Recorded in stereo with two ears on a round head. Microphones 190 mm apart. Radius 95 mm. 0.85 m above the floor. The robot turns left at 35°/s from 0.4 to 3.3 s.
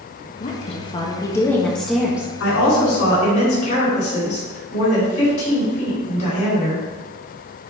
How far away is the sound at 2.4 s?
About 3.5 m.